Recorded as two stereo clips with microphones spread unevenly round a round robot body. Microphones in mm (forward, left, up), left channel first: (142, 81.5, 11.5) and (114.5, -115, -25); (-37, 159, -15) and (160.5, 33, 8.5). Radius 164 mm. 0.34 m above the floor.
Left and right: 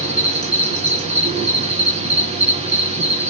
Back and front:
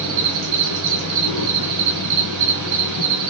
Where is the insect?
40° right, 3.5 m.